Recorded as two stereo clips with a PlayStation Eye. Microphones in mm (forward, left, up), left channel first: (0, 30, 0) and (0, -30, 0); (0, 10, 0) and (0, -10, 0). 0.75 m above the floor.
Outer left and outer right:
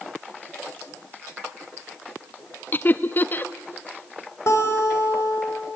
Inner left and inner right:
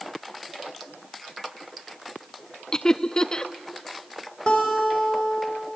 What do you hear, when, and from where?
2.7 s laughter: 35° left (ahead or behind), 0.7 m
4.5 s a guitar: 50° left (ahead or behind), 4.5 m